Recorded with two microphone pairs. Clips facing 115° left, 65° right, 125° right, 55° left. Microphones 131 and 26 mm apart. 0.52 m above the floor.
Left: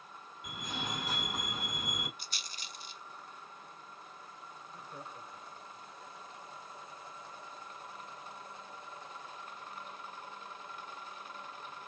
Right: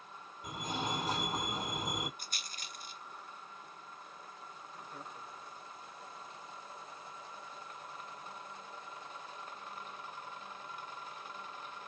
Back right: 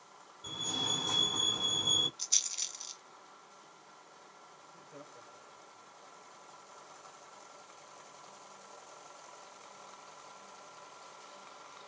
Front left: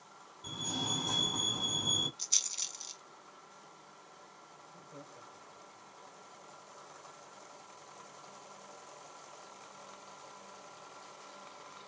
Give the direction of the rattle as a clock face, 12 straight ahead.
1 o'clock.